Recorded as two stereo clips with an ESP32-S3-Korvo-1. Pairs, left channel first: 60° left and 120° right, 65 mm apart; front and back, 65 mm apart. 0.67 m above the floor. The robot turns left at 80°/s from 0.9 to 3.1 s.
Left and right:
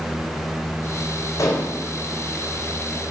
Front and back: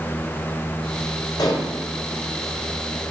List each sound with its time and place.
1.4 s dishes clattering: 25° left, 1.8 m; by 1.7 s straight ahead, 1.8 m